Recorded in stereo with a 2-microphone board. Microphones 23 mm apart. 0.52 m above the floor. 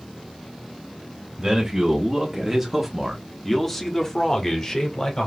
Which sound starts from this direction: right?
A man speaking, at 1.4 s.